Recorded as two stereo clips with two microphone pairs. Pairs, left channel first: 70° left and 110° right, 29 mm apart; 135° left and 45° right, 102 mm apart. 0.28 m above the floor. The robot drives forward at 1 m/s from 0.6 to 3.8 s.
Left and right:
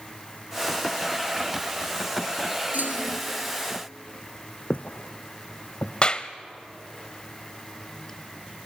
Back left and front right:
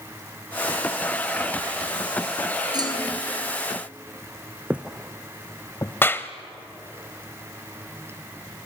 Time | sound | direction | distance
2.7 | a clunk | 90° right | 3 m
4.7 | footsteps | 30° left | 0.9 m
6.0 | a clap | 85° left | 0.8 m